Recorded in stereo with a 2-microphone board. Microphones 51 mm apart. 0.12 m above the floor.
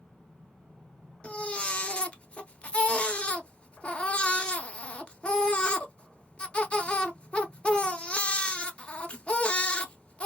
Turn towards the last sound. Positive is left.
turn(degrees=20)  # may be behind; listen again after turning